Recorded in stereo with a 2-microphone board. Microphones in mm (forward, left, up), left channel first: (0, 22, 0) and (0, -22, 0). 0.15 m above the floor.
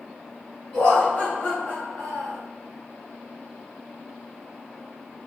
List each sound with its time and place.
0.7 s laughter: 25° left (ahead or behind), 1.1 m; by 2.4 s 45° left (ahead or behind), 1.5 m